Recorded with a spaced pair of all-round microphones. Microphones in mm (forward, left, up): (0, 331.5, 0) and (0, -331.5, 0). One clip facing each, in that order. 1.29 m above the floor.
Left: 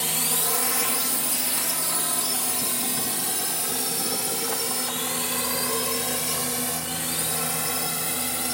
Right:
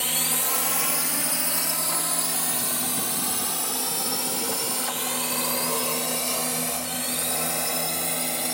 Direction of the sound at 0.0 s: 65° left (ahead or behind).